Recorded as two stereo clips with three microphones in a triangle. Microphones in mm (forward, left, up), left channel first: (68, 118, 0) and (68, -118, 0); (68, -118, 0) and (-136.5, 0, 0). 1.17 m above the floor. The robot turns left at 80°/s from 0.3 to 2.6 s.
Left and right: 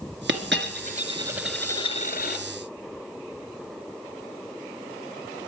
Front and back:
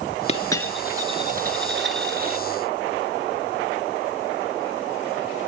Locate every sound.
0.3 s a dropped coin: 85° right, 1.7 m; by 2.4 s 105° left, 1.7 m